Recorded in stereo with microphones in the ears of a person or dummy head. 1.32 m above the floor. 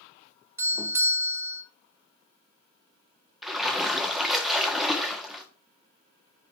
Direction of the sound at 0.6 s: 15° right (ahead or behind).